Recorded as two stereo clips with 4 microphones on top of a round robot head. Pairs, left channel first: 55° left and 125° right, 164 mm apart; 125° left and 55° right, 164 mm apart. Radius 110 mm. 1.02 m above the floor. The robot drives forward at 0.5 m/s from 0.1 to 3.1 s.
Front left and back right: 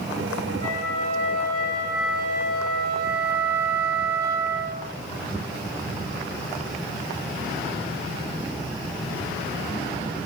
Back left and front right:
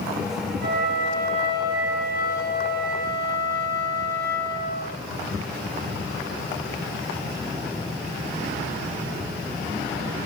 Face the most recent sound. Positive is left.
turn(degrees=-90)